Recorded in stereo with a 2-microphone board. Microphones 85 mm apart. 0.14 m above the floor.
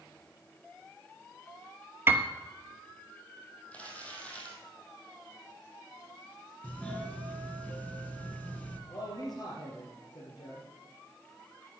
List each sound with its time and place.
2.1 s a piano: 25° right (ahead or behind), 1.0 m
3.7 s crumpling: 15° left (ahead or behind), 3 m
6.6 s a doorbell: 15° left (ahead or behind), 1.6 m
8.9 s a man speaking: 55° left (ahead or behind), 3.5 m